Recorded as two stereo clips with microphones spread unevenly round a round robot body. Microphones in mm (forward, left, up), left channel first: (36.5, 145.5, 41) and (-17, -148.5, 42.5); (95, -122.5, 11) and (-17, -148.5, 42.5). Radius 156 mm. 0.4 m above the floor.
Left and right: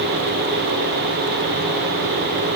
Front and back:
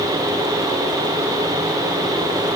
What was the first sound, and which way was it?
Only background noise.